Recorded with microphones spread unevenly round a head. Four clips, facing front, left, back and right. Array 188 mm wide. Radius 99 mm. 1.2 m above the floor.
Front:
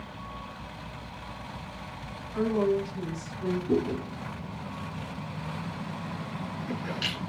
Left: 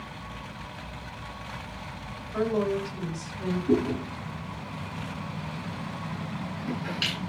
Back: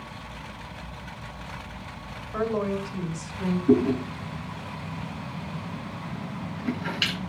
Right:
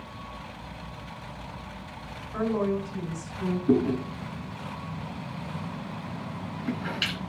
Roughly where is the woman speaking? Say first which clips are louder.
Left 1 dB, front 1 dB; behind.